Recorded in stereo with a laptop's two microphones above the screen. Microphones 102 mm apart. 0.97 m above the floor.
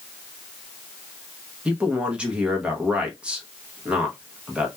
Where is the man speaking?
10° right (ahead or behind), 0.7 m.